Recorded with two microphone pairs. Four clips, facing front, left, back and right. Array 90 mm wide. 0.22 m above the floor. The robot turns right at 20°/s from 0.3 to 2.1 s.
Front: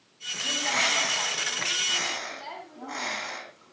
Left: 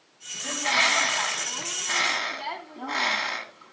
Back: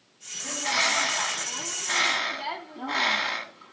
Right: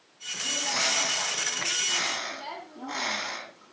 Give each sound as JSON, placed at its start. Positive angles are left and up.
{"t": 0.4, "sound": "a bird", "azimuth_deg": 90, "distance_m": 1.6}